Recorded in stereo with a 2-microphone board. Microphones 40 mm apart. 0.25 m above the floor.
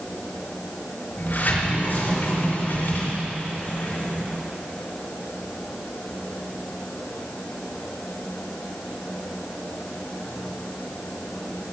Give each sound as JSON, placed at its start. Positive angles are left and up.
{"t": 1.2, "sound": "a sliding door", "side_deg": 55, "distance_m": 3.5}